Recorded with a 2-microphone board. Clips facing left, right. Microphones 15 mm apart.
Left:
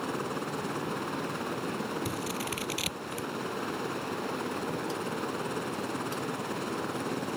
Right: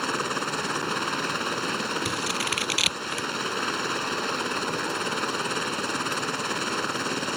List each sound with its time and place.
0.0 s a helicopter: 55° right (ahead or behind)
2.0 s scissors: 40° right (ahead or behind)